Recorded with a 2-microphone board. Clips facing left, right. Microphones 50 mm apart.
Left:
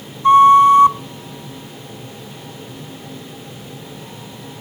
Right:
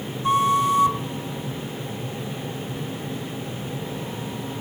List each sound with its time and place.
0.2 s a flute: 40° left (ahead or behind), 0.8 m